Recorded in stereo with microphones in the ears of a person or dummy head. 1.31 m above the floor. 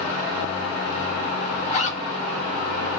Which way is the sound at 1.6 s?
40° left (ahead or behind).